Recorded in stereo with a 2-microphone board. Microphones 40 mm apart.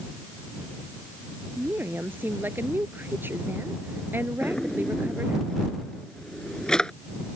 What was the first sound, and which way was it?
A woman speaking, 60° right (ahead or behind).